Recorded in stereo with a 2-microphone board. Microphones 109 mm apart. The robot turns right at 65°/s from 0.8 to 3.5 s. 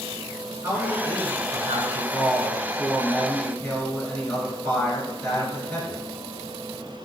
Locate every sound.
0.6 s a man speaking: 160° right, 1.5 m; by 6.0 s 15° left, 1.5 m